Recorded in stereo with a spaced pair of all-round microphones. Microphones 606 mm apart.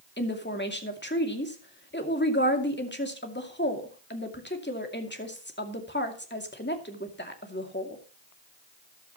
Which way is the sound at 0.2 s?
15° left (ahead or behind).